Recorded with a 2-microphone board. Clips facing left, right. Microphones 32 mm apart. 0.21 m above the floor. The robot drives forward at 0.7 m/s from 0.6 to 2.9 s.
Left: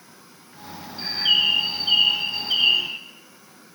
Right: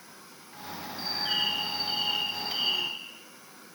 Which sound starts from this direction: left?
A bird, at 1.0 s.